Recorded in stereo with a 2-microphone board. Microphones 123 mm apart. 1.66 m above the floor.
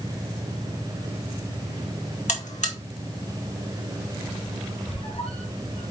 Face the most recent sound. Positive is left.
turn(degrees=55)  # may be behind; listen again after turning